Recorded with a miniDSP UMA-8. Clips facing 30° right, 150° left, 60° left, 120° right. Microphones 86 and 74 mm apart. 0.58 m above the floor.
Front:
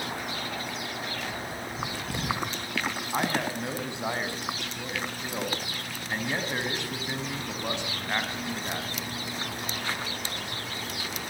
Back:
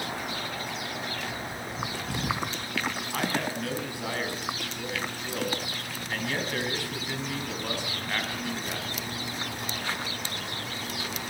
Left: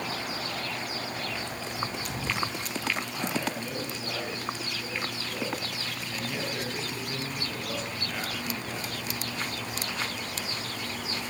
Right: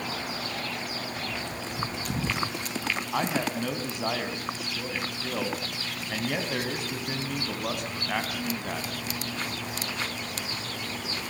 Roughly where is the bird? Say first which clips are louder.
Even, right 1 dB; behind right.